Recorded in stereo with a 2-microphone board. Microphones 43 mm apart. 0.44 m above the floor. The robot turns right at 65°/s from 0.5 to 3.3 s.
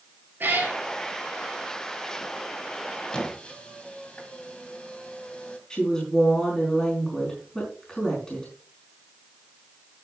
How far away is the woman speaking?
About 4.5 m.